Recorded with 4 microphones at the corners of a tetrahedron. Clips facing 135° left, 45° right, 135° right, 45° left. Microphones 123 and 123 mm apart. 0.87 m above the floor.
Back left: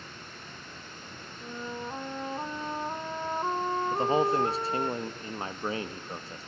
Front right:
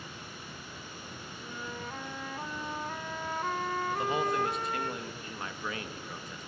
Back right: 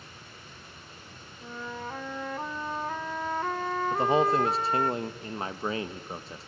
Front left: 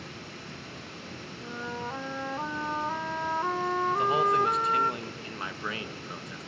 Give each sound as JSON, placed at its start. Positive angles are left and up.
{"t": 0.0, "sound": "running water", "azimuth_deg": 35, "distance_m": 3.5}
{"t": 1.4, "sound": "a flute", "azimuth_deg": 120, "distance_m": 0.9}
{"t": 3.9, "sound": "a man speaking", "azimuth_deg": 175, "distance_m": 1.3}